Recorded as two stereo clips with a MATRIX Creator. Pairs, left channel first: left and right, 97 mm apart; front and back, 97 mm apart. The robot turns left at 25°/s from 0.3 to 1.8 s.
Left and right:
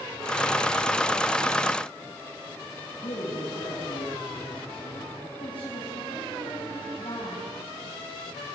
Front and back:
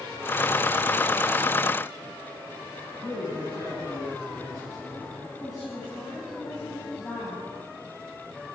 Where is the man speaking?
60° left, 6 m.